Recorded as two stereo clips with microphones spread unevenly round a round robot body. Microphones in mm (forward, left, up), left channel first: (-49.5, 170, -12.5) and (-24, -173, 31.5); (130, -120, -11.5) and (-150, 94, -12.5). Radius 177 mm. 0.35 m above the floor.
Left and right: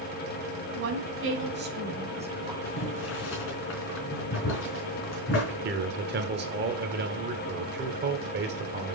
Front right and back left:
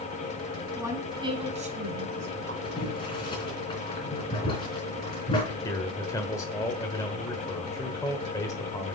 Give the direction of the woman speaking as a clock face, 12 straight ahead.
4 o'clock.